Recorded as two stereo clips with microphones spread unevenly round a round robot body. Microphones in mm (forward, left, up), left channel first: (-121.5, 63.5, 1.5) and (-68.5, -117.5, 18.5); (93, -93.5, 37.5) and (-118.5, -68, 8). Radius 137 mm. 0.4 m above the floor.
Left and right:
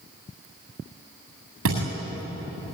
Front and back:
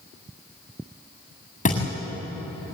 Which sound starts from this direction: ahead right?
A thud, at 1.6 s.